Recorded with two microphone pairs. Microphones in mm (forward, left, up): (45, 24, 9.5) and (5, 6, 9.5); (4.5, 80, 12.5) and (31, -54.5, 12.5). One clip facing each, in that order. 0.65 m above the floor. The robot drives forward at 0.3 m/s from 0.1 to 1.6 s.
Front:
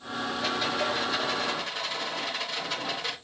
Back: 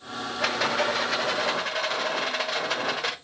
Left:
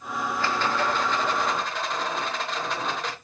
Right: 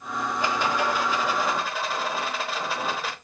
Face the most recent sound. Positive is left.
turn(degrees=-165)